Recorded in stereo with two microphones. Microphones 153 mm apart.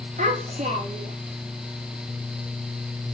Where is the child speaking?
55° right (ahead or behind), 5 m.